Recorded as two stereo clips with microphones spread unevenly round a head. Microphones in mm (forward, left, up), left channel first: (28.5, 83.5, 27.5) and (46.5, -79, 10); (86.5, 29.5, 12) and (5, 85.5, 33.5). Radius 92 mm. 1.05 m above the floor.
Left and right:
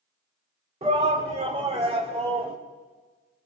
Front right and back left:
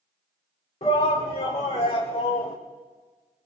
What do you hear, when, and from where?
0.8 s a shout: 35° right, 2.5 m; by 2.5 s 30° right, 3.5 m